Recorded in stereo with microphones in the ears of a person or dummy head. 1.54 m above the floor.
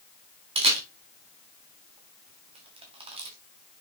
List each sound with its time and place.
0.6 s a camera shutter: 25° right (ahead or behind), 1.9 m